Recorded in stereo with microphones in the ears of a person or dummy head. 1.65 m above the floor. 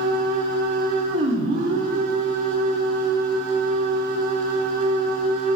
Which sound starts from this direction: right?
A machine running, at 0.0 s.